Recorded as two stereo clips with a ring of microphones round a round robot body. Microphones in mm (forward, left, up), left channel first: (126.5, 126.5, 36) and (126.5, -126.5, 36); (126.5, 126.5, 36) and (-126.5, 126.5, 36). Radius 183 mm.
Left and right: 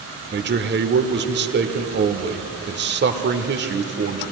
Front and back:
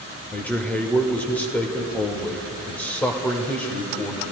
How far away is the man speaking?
About 1.1 m.